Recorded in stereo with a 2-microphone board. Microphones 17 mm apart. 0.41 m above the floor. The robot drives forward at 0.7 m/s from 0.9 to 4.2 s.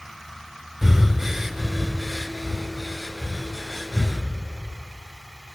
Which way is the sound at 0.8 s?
20° right (ahead or behind).